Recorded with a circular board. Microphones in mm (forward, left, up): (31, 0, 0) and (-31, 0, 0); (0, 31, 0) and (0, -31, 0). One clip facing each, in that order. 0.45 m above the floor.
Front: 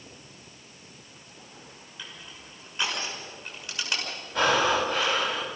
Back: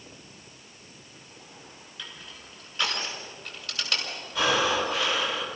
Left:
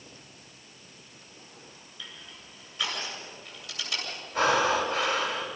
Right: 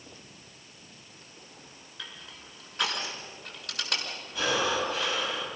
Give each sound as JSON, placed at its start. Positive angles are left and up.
{"t": 2.0, "sound": "crushing", "azimuth_deg": -70, "distance_m": 6.0}
{"t": 4.3, "sound": "breathing", "azimuth_deg": 45, "distance_m": 3.5}